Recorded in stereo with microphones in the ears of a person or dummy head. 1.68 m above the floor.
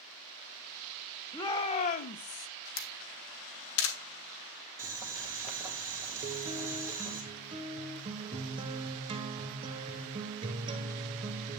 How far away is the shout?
About 0.7 m.